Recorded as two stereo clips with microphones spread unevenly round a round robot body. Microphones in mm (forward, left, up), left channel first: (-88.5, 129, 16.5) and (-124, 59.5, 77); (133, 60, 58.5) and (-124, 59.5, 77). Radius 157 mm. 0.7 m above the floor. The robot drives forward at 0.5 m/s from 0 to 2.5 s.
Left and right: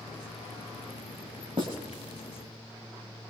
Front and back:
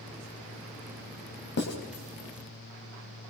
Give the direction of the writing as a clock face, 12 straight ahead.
2 o'clock.